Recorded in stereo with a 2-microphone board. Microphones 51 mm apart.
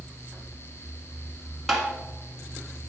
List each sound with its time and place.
1.7 s tapping: centre (ahead or behind), 1.5 m